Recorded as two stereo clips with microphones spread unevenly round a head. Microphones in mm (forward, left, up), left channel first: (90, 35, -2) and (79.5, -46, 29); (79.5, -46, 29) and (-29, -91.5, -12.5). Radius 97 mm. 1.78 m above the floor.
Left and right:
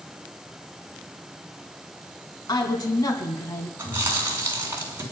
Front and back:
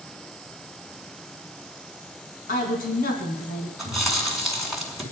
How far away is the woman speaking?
About 2.5 m.